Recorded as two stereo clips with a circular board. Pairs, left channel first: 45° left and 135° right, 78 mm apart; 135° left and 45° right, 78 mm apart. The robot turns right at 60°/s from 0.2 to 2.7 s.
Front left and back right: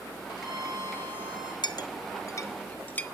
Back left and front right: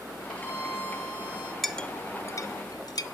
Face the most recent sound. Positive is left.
turn(degrees=110)